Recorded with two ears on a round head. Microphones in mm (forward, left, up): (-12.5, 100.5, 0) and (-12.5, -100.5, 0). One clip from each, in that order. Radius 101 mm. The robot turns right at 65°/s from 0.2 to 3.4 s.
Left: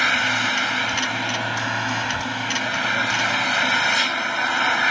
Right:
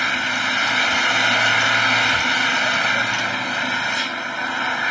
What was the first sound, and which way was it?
An engine running, 170° left.